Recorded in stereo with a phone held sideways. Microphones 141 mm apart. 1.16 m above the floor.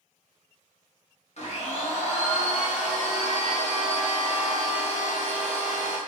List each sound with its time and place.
1.4 s a blender: 50° left (ahead or behind), 0.9 m